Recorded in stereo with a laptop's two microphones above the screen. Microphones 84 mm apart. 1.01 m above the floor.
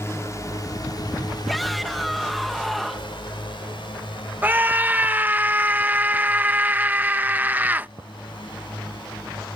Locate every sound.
0.0 s a drone: 35° left (ahead or behind); by 9.6 s 70° left (ahead or behind)
1.5 s a shout: centre (ahead or behind)
4.4 s a scream: 20° right (ahead or behind)